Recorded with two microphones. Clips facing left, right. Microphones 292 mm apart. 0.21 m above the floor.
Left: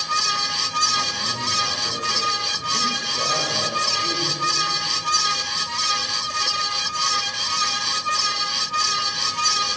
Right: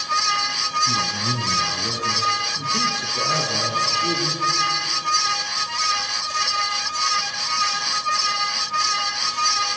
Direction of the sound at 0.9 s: 40° right (ahead or behind).